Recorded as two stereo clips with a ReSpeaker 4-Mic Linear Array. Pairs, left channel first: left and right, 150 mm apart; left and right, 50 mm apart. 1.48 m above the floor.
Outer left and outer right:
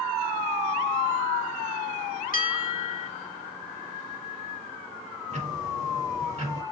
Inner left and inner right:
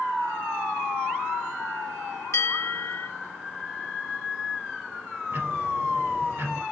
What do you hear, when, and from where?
2.3 s a bell: 65° left (ahead or behind), 2 m
5.3 s ticking: 50° right (ahead or behind), 5 m